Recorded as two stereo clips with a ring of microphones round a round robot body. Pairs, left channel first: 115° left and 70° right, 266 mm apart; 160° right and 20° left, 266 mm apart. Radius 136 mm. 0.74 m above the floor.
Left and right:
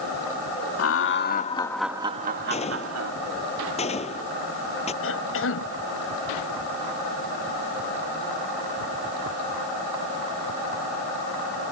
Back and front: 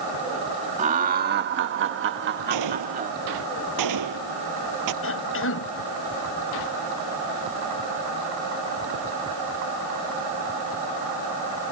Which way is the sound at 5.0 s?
155° left.